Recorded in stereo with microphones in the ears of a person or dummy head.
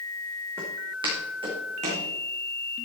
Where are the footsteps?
15° right (ahead or behind), 4 m; by 2.1 s 40° right (ahead or behind), 4.5 m.